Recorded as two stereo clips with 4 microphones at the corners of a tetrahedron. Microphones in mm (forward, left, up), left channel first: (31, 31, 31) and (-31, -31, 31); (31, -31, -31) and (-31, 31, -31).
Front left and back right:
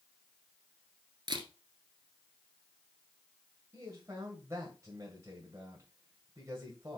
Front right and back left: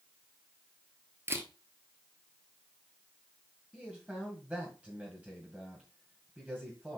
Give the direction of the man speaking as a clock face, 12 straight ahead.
5 o'clock.